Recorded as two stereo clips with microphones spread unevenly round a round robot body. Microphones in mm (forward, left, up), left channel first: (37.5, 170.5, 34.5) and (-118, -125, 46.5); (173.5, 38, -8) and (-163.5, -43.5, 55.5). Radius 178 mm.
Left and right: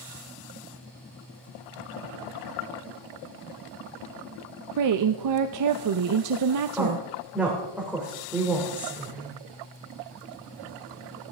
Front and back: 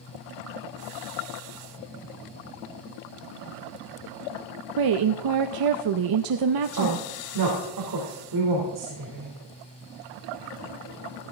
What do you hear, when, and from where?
4.8 s a woman speaking: 140° right, 0.7 m
6.8 s a woman speaking: 155° left, 3 m